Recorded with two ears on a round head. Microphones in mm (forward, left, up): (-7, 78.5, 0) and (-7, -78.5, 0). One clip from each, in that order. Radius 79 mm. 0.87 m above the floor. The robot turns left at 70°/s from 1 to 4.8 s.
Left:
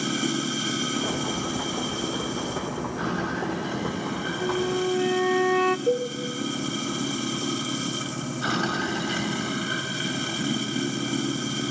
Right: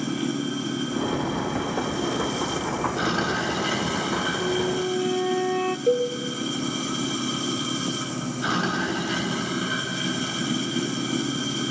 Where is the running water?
75° left, 4 m; by 11.7 s 170° left, 4 m.